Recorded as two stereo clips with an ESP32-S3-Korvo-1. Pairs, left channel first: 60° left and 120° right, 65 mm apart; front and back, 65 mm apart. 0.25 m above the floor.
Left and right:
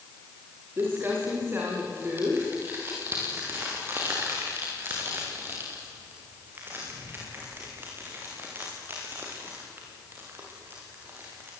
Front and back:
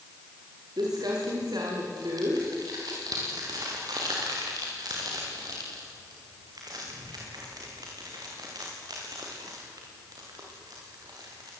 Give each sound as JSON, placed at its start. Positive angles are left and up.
{"t": 0.8, "sound": "crumpling", "azimuth_deg": -175, "distance_m": 7.5}